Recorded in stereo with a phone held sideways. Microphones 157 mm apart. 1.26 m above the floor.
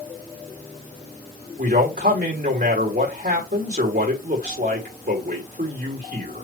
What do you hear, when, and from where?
1.6 s a man speaking: 90° right, 3.5 m